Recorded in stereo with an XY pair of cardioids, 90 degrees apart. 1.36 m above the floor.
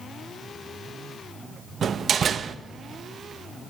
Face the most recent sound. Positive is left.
turn(degrees=-55)